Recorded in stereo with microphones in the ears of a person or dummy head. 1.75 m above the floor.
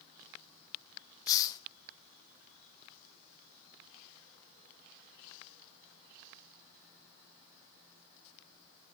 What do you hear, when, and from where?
1.3 s a hiss: 20° left (ahead or behind), 0.6 m